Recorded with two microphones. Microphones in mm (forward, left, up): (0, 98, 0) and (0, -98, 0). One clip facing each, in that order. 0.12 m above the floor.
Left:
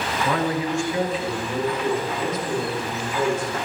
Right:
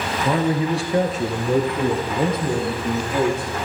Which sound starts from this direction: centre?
A man speaking, at 0.2 s.